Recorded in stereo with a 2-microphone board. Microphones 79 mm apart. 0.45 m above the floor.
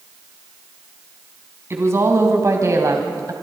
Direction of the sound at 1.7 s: 35° right (ahead or behind).